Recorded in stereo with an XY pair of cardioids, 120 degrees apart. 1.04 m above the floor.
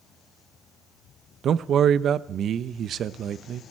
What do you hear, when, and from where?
1.4 s a man speaking: 55° right, 0.6 m